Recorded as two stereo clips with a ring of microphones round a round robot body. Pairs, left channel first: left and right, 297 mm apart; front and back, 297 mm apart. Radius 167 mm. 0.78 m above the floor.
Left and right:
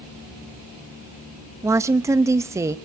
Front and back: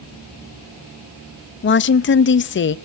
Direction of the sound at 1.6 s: 15° right.